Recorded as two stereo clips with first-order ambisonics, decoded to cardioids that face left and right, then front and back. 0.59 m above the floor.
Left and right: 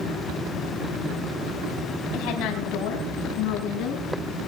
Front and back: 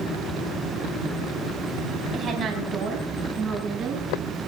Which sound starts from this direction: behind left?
A woman speaking, at 2.1 s.